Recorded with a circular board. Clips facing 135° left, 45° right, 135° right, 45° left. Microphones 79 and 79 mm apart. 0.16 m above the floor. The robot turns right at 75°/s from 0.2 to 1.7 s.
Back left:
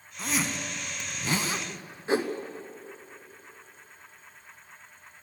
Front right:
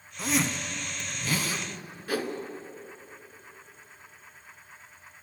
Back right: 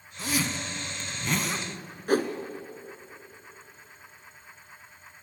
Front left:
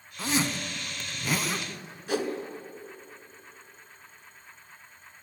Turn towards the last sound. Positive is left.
turn(degrees=-170)